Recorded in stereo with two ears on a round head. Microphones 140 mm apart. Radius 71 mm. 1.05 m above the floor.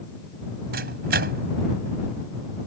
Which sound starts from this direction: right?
A microwave, at 0.7 s.